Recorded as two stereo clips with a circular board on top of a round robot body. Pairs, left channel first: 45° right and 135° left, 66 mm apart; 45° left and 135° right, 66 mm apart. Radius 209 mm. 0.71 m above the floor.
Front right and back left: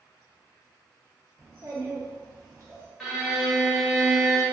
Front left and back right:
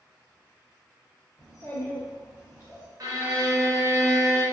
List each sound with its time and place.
1.4 s a child speaking: 90° left, 1.1 m
3.0 s a violin: 130° right, 1.4 m